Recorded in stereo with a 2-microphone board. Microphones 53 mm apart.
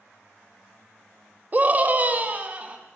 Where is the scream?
35° right (ahead or behind), 1.3 m; by 2.8 s 25° right (ahead or behind), 2.5 m.